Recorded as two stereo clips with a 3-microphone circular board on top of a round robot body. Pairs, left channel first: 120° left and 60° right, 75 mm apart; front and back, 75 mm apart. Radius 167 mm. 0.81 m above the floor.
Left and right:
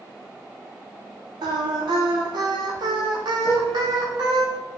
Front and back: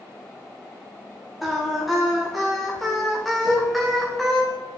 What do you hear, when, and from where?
1.4 s singing: 90° right, 0.8 m
3.5 s a piano: 15° left, 2 m